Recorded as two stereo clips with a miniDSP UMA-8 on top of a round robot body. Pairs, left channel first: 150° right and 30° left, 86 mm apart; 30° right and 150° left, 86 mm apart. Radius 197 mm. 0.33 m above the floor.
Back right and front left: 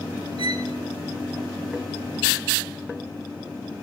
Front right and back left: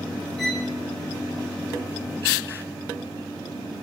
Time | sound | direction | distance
0.4 | a violin | 55° left | 5 m